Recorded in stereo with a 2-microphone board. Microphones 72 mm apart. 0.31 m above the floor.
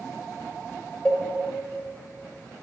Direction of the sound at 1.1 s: 15° left (ahead or behind).